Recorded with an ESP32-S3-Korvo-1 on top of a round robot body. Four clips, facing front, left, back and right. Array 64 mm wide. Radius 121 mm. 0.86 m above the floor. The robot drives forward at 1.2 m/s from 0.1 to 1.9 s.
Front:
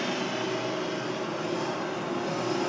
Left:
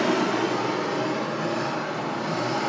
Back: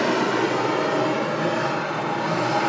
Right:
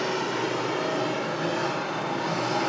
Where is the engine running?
145° left, 0.9 m; by 2.7 s 170° left, 3 m.